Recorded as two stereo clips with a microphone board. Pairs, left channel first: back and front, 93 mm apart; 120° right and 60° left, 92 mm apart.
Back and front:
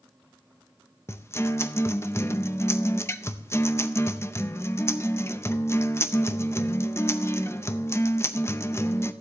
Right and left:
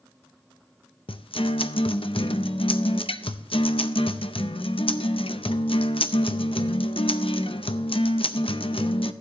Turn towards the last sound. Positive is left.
turn(degrees=-120)